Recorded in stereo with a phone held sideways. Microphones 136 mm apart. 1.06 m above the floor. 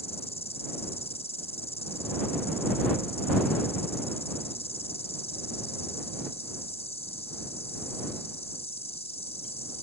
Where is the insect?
50° left (ahead or behind).